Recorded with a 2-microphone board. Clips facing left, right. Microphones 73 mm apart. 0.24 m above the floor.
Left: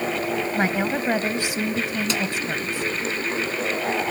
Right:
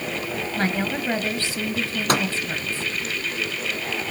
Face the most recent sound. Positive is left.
turn(degrees=-60)  # may be behind; listen again after turning